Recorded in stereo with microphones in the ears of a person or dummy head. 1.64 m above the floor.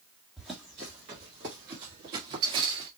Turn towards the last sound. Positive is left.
turn(degrees=-30)  # may be behind; listen again after turning